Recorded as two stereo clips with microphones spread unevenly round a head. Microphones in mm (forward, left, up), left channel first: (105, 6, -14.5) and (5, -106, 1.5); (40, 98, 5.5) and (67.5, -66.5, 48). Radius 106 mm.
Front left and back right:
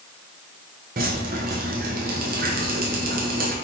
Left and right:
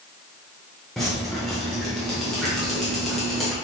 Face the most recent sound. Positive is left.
turn(degrees=-165)